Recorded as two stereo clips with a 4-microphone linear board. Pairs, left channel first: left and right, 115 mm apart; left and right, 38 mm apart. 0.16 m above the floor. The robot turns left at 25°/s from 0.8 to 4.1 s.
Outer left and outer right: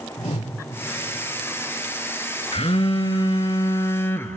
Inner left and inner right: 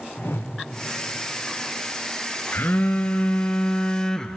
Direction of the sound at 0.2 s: 75° left (ahead or behind).